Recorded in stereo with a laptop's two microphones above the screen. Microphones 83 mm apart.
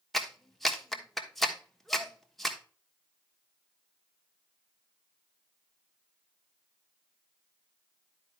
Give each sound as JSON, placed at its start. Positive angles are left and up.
{"t": 0.1, "sound": "a clap", "side_deg": 0, "distance_m": 1.3}